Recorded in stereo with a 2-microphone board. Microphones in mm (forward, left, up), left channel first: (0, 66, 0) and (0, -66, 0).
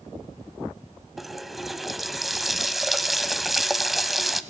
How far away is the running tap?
About 0.7 m.